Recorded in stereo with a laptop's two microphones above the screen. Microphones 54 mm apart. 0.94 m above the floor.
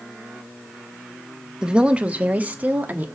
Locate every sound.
1.6 s a woman speaking: 15° right (ahead or behind), 0.8 m; by 3.0 s 35° right (ahead or behind), 1.6 m